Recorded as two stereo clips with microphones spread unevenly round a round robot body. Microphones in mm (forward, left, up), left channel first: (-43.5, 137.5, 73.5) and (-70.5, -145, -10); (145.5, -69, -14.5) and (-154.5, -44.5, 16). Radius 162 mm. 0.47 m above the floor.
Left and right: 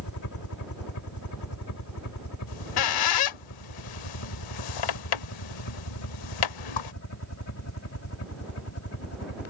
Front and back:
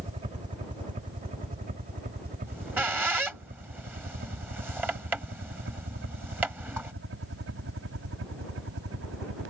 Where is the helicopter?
105° left; by 9.5 s 125° left.